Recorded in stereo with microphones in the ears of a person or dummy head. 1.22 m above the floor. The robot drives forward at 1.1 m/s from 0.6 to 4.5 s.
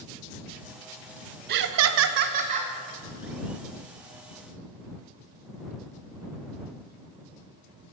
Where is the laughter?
60° right (ahead or behind), 0.7 m; by 2.7 s 30° right (ahead or behind), 1.2 m.